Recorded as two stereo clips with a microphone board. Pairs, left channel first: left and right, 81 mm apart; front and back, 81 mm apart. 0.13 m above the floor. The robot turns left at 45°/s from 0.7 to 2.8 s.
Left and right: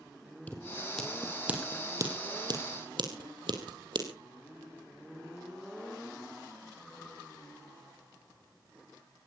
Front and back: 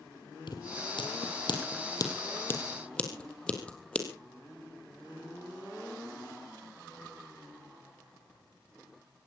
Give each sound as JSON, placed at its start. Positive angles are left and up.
{"t": 0.5, "sound": "scissors", "azimuth_deg": 20, "distance_m": 3.0}